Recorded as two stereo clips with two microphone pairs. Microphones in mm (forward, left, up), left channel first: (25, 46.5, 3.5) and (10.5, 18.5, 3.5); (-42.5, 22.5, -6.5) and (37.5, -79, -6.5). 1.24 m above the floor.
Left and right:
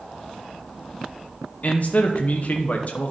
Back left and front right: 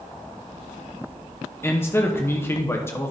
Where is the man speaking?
60° left, 0.9 m.